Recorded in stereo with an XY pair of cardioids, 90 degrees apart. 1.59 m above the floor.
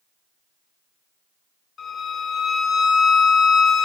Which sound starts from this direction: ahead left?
A violin, at 1.8 s.